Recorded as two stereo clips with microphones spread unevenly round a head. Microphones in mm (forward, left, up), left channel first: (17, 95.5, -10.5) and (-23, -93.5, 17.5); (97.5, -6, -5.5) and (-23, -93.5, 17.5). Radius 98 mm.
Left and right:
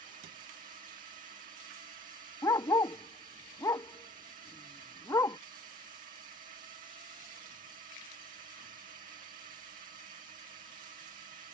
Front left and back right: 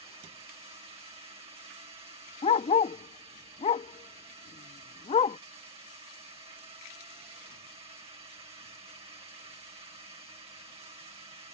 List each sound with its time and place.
0.0 s a drone: 120° right
2.4 s a dog barking: straight ahead